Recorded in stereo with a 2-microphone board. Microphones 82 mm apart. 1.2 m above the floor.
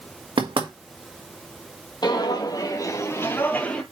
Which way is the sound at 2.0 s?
60° left (ahead or behind).